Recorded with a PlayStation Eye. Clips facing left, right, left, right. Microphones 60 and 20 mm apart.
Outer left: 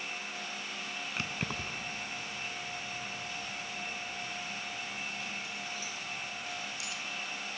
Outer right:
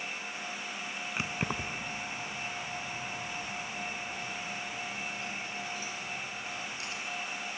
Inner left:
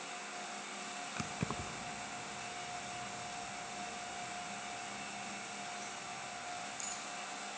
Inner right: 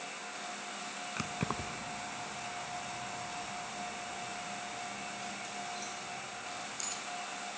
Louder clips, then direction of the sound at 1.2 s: Outer right 3 dB, inner right 4 dB; 15° right (ahead or behind).